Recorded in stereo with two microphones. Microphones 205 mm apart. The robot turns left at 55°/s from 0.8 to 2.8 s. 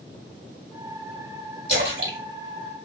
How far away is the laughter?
No laughter in this recording.